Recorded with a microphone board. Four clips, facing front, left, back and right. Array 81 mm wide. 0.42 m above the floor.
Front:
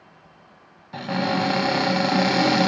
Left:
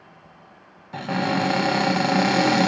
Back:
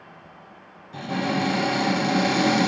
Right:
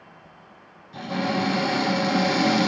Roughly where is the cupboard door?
Ahead left.